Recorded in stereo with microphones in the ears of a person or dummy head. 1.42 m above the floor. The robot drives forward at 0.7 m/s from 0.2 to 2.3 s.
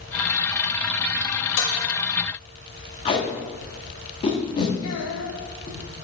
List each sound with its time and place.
1.6 s dishes clattering: 60° left (ahead or behind), 1.2 m
3.0 s tape being pulled: 25° left (ahead or behind), 1.3 m
4.8 s a child speaking: 80° left, 1.5 m